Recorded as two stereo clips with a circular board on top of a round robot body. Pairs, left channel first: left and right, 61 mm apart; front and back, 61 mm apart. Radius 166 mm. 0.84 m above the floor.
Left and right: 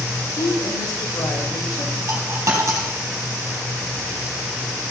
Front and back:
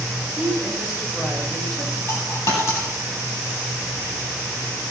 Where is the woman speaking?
90° left, 3.5 m; by 2.0 s 75° left, 3 m.